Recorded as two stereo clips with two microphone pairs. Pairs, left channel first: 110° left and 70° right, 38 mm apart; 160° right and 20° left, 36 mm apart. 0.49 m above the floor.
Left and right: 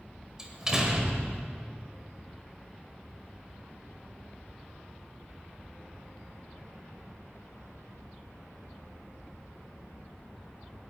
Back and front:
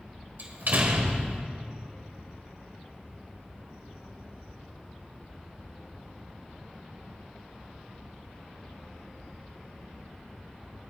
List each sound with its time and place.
0.4 s a door slam: straight ahead, 1.6 m